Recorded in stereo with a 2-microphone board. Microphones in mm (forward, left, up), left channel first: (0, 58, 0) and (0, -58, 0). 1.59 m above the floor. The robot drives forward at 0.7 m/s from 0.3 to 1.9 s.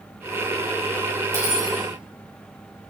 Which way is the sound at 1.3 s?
25° right (ahead or behind).